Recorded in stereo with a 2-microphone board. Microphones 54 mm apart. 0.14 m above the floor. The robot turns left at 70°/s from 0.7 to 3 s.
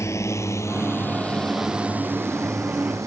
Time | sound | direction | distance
0.0 | a drone | 65° left (ahead or behind) | ?